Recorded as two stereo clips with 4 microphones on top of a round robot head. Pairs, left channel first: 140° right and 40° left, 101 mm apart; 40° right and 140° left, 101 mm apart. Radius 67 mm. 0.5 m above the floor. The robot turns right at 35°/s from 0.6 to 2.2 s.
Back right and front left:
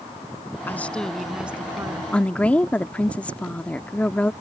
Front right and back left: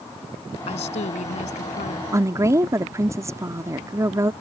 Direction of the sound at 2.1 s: 155° left.